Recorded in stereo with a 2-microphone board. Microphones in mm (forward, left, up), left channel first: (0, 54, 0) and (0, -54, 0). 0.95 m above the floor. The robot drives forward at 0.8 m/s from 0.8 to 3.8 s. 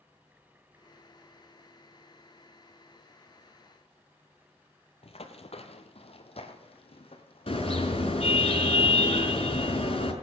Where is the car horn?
55° left (ahead or behind), 5 m.